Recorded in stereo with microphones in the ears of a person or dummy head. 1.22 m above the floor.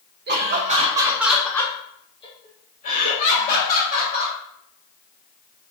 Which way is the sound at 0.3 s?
55° right (ahead or behind).